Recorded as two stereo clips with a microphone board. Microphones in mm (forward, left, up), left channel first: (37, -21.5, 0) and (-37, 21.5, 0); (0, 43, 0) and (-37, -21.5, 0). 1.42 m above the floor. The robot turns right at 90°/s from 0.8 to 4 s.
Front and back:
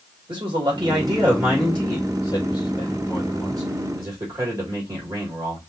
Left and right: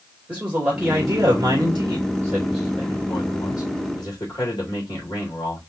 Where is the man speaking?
170° left, 3 m; by 5.6 s 95° left, 3 m.